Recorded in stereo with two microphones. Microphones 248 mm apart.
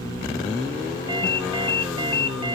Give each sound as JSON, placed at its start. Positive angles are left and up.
{"t": 1.1, "sound": "a ringtone", "side_deg": -20, "distance_m": 1.8}